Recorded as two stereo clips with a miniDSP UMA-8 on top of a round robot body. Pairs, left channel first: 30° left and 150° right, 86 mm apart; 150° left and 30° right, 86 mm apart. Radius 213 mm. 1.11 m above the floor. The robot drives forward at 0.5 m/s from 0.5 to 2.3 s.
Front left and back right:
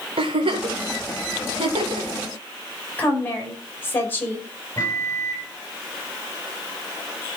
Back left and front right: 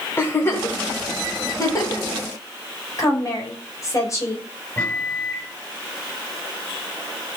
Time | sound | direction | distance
0.2 | a giggle | 145° right | 1.4 m
3.0 | a woman speaking | 95° left | 5.5 m
4.8 | a microwave | 90° left | 7.5 m